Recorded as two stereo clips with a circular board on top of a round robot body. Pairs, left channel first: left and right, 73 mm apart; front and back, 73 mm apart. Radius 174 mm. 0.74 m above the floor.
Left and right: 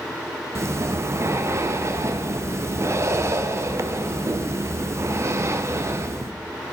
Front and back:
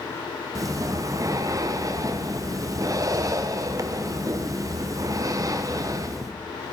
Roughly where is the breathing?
Behind right.